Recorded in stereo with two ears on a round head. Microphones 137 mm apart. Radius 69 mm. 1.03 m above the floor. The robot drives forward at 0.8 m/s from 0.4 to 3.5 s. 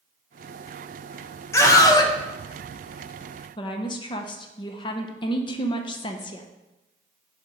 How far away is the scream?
About 1.0 m.